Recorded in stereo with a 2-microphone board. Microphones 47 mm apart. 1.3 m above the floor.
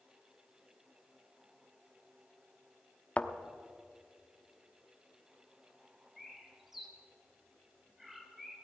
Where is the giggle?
No giggle in this recording.